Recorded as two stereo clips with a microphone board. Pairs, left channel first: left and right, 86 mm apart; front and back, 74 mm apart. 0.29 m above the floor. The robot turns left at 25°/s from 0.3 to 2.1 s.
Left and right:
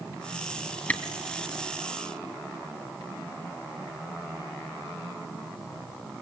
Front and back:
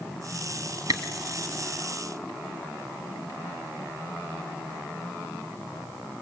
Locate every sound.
0.9 s a camera shutter: 160° left, 3 m; by 1.0 s 155° left, 3 m